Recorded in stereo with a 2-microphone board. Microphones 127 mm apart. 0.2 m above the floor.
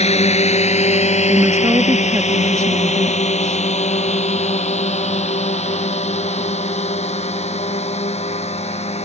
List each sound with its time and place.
0.0 s a drone: 65° left (ahead or behind)
1.3 s a woman speaking: 25° right (ahead or behind)